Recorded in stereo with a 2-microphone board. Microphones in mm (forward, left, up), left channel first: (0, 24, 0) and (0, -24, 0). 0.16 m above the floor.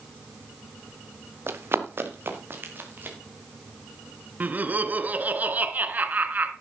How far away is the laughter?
About 1.6 m.